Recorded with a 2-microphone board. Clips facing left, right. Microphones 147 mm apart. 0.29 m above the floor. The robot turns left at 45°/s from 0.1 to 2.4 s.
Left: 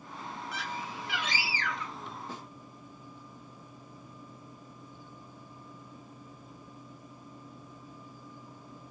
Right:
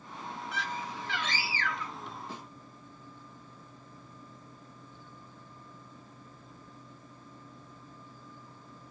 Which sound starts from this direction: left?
A snare drum, at 2.3 s.